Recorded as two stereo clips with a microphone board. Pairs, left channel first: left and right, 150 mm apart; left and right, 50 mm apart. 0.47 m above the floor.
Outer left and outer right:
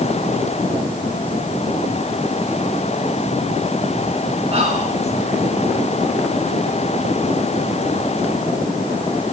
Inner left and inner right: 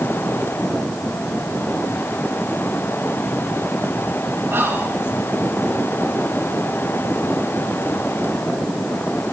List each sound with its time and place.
4.5 s whispering: 40° right (ahead or behind), 2.5 m